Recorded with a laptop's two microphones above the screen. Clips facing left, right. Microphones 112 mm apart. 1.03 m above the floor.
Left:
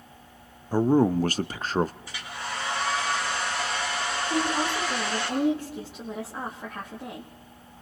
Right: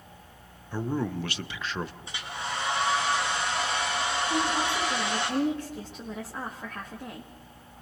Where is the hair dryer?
25° right (ahead or behind), 7.5 m.